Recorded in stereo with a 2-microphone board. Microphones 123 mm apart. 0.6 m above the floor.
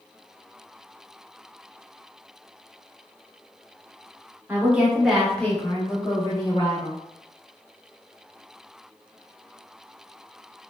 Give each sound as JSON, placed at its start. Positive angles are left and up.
{"t": 4.5, "sound": "a woman speaking", "side_deg": -15, "distance_m": 0.9}